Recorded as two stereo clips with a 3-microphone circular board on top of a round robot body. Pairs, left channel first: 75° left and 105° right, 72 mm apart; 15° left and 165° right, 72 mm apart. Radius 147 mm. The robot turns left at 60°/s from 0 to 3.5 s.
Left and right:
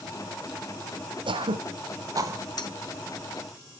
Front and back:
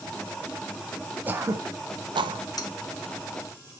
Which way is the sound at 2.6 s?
45° left.